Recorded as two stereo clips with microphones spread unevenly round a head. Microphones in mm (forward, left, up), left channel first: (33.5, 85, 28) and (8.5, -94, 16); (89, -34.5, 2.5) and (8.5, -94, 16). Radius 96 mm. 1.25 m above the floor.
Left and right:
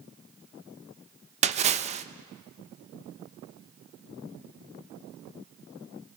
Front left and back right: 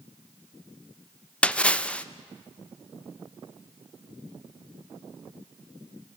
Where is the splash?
45° right, 1.0 m.